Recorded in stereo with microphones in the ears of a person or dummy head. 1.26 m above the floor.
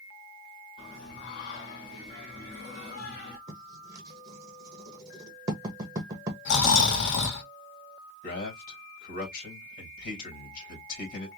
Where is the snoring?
65° left (ahead or behind), 1.2 m.